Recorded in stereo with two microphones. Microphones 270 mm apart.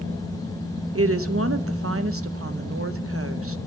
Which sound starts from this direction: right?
A woman speaking, at 0.9 s.